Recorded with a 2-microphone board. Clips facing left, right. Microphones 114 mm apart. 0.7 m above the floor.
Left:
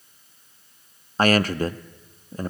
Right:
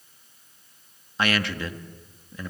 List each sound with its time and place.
1.2 s a man speaking: 40° left (ahead or behind), 0.6 m